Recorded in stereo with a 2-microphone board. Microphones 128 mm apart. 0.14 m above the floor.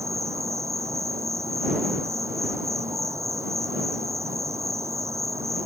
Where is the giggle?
I don't hear a giggle.